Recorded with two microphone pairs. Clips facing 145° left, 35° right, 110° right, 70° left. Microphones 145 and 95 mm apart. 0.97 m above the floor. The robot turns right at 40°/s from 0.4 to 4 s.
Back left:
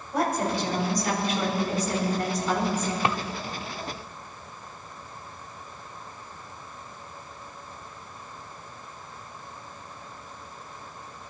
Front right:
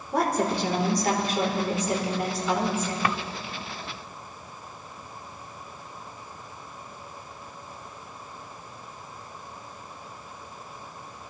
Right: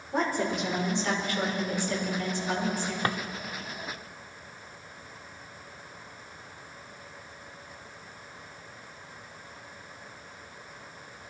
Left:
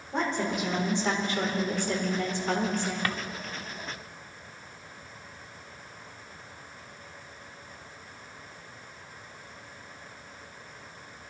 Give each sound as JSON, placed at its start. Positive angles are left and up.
{"t": 0.1, "sound": "a woman speaking", "azimuth_deg": -25, "distance_m": 4.0}
{"t": 3.0, "sound": "a drawer", "azimuth_deg": -155, "distance_m": 0.7}